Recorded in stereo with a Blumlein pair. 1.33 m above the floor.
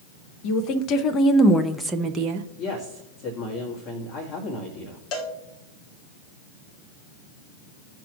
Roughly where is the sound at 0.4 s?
Ahead left.